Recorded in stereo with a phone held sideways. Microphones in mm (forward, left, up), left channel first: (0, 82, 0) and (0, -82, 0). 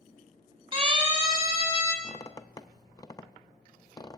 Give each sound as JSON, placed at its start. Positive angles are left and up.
{"t": 0.7, "sound": "a siren", "side_deg": -35, "distance_m": 4.5}
{"t": 2.0, "sound": "a squeak", "side_deg": 25, "distance_m": 0.6}